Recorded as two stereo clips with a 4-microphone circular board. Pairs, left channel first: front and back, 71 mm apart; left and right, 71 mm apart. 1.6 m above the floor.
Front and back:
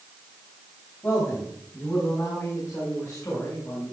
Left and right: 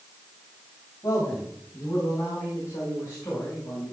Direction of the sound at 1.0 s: 55° left.